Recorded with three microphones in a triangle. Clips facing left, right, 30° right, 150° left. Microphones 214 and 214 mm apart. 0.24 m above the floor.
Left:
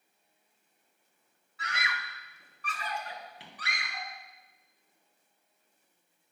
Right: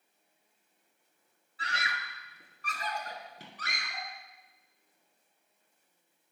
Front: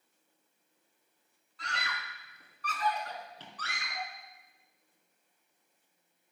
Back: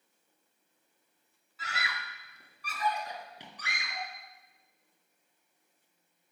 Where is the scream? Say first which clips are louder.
Even, back 1 dB; 125° right, 1.2 m; by 4.1 s 135° right, 3 m.